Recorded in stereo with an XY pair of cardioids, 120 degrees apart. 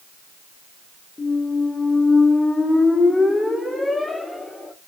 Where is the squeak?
10° left, 0.7 m.